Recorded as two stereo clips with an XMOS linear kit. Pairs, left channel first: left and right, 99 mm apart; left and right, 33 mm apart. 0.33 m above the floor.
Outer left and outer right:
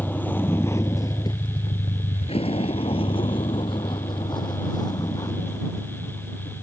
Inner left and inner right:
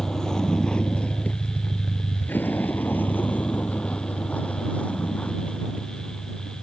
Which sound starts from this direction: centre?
A vehicle, at 0.0 s.